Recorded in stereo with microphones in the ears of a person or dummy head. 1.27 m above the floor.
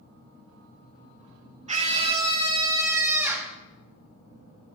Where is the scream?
40° right (ahead or behind), 1.7 m; by 3.5 s 10° right (ahead or behind), 1.8 m.